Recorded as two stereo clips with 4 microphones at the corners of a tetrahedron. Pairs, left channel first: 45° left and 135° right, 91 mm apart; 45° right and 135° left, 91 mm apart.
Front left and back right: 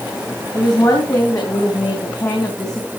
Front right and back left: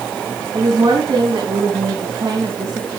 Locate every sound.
0.5 s a woman speaking: 90° left, 3.5 m